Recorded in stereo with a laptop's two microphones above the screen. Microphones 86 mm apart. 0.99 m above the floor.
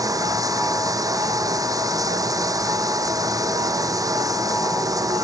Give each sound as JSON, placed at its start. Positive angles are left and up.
{"t": 0.0, "sound": "running water", "side_deg": -45}